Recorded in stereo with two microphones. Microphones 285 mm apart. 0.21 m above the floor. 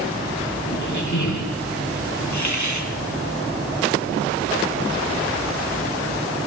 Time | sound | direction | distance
0.7 | a squeak | 85° left | 3 m
2.3 | a hiss | 75° left (ahead or behind) | 3 m